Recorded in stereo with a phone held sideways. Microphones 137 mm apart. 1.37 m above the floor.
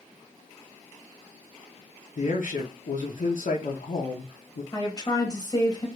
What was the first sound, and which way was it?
A man speaking, 70° left (ahead or behind).